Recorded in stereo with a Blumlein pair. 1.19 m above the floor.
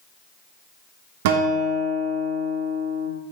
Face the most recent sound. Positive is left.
turn(degrees=-50)